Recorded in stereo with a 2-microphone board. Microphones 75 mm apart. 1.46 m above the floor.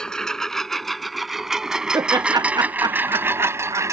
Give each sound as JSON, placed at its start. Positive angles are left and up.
{"t": 0.0, "sound": "a lawn mower", "side_deg": 10}
{"t": 1.9, "sound": "laughter", "side_deg": -70}